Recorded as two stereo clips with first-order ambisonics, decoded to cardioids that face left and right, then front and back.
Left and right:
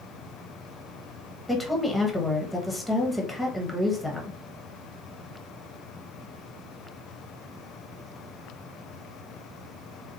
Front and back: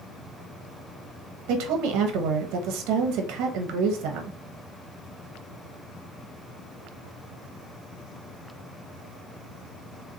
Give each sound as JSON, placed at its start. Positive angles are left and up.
{"t": 1.5, "sound": "a woman speaking", "azimuth_deg": 175, "distance_m": 0.9}